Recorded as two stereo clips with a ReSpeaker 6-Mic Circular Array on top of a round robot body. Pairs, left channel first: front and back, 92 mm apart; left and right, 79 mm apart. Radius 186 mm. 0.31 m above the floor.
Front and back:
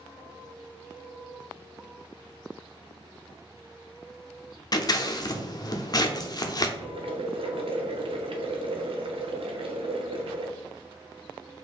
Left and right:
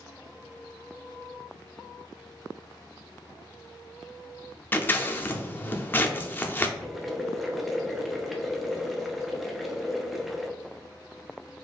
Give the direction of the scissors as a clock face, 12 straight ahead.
11 o'clock.